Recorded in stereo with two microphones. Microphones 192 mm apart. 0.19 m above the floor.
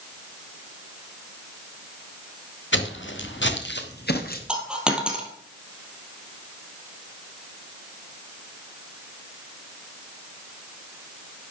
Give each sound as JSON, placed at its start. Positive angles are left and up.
{"t": 2.7, "sound": "footsteps", "side_deg": 85, "distance_m": 2.5}
{"t": 4.5, "sound": "a dropped coin", "side_deg": -5, "distance_m": 2.5}